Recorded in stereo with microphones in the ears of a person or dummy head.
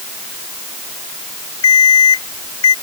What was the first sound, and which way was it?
An alarm clock, 85° left.